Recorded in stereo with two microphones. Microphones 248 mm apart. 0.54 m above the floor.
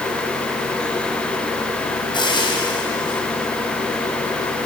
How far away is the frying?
About 4 m.